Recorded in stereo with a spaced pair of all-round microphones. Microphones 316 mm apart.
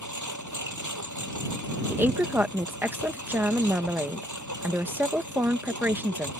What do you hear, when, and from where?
0.0 s a lawn mower: 65° right (ahead or behind)
1.9 s a woman speaking: 5° right (ahead or behind)